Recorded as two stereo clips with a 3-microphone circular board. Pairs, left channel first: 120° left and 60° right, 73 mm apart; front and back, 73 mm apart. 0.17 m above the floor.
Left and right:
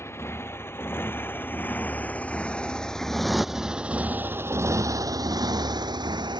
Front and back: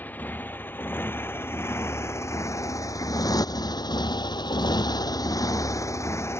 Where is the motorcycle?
65° left; by 6.4 s 55° right.